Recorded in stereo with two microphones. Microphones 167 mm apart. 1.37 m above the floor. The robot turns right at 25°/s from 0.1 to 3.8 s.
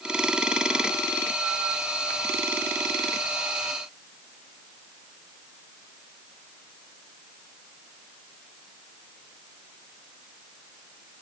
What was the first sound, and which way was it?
Only background noise.